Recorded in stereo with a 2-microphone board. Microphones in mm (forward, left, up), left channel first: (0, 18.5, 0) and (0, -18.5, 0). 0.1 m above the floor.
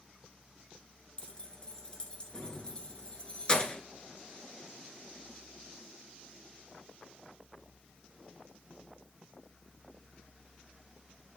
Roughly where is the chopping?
No chopping in this recording.